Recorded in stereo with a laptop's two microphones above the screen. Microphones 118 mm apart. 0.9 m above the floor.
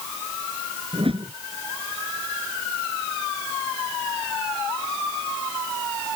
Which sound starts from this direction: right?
A whoosh, at 0.9 s.